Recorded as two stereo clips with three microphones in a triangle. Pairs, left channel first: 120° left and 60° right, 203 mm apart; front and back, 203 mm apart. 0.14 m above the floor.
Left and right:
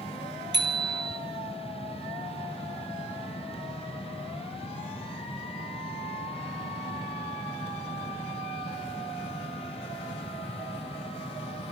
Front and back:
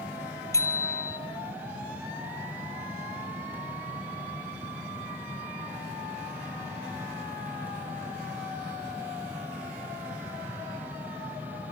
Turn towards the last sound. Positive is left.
turn(degrees=-75)